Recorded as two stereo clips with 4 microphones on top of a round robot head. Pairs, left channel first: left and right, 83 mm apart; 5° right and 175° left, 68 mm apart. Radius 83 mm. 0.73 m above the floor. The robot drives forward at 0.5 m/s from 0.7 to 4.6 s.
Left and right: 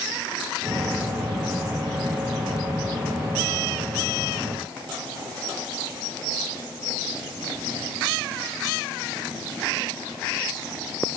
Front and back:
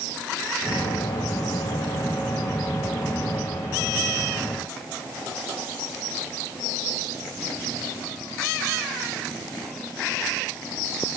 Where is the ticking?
No ticking in this recording.